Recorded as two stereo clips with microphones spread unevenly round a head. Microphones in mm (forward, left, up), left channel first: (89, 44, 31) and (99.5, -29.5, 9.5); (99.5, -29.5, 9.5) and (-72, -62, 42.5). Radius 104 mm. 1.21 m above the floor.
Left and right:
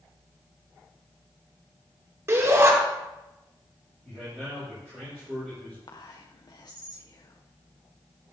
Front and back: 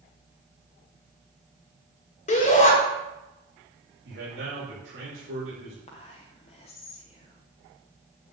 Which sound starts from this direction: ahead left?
Whispering, at 5.9 s.